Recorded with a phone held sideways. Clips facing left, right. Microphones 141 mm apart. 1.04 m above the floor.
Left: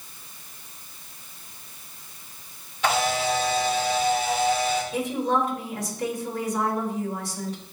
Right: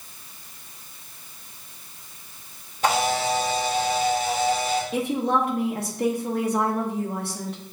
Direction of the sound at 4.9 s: 60° right (ahead or behind).